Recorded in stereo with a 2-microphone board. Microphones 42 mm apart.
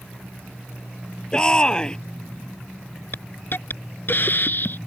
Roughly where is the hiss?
Left.